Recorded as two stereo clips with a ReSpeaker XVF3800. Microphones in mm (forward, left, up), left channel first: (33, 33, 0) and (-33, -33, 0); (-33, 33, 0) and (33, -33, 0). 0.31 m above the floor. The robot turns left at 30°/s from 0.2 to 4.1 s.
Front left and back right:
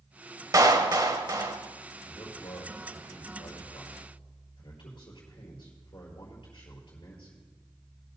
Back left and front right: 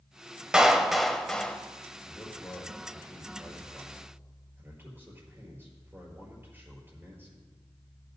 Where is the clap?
125° right, 1.1 m; by 1.6 s 155° right, 1.1 m.